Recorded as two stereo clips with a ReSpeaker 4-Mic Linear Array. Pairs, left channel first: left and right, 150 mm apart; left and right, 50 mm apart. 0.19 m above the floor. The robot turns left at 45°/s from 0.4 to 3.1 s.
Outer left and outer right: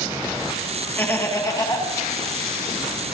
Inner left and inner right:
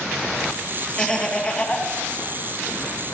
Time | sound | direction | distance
1.0 | laughter | 160° left | 1.6 m